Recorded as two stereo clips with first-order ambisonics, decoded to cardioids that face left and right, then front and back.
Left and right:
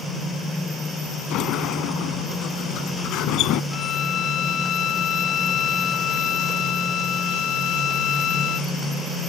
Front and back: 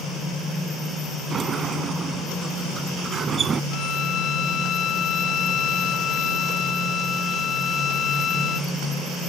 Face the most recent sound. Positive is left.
turn(degrees=45)